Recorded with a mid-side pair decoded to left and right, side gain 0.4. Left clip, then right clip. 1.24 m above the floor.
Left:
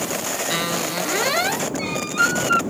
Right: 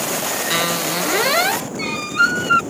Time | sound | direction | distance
0.5 | a squeak | 35° right | ?